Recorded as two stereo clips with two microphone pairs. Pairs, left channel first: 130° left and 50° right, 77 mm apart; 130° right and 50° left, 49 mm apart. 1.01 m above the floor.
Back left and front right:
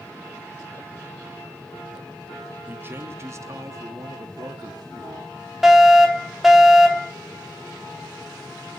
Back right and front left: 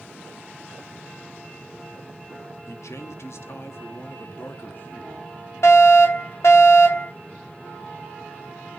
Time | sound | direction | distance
2.7 | a man speaking | 115° right | 1.3 m
5.6 | a fire alarm | 135° right | 3.5 m